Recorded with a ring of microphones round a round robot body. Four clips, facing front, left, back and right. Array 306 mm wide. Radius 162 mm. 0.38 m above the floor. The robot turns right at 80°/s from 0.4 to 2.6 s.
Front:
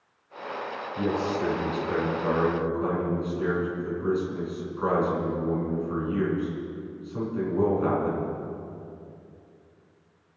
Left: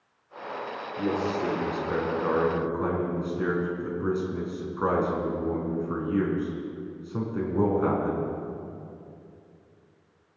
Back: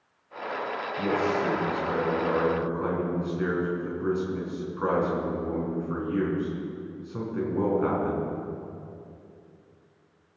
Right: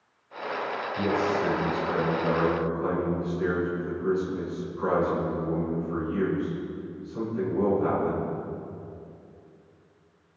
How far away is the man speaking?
About 4 m.